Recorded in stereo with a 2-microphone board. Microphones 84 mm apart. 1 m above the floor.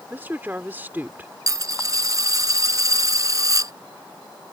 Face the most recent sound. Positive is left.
turn(degrees=-40)  # may be behind; listen again after turning